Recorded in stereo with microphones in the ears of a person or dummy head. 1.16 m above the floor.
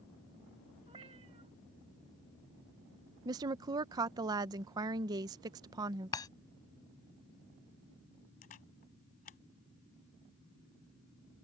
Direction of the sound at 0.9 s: 30° right (ahead or behind).